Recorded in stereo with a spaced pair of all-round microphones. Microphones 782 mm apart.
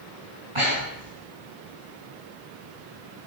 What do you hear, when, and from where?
0.6 s breathing: 40° right (ahead or behind), 8 m